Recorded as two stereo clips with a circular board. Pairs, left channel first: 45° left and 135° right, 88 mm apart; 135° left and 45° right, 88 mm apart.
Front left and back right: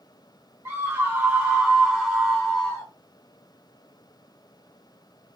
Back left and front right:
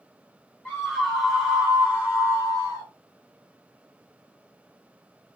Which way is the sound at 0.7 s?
160° right.